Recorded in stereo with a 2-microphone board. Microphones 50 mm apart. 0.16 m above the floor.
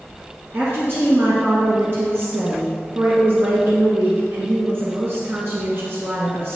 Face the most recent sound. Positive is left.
turn(degrees=-45)  # may be behind; listen again after turning